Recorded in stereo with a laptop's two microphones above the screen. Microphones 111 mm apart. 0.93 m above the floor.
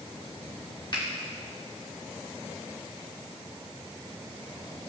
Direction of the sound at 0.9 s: 45° left (ahead or behind).